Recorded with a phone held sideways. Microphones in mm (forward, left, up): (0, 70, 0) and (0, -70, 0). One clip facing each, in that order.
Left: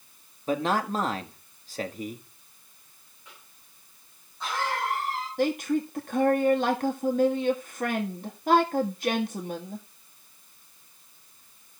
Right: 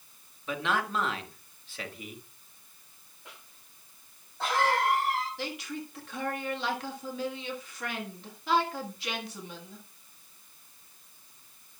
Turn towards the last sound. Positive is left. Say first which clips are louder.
# left 12 dB
turn(degrees=50)  # may be behind; listen again after turning